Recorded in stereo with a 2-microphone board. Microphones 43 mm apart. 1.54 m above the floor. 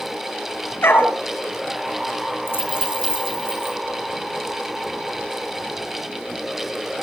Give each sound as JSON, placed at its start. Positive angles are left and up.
{"t": 0.8, "sound": "a dog barking", "side_deg": 60, "distance_m": 5.5}
{"t": 2.5, "sound": "a dropped coin", "side_deg": 55, "distance_m": 4.5}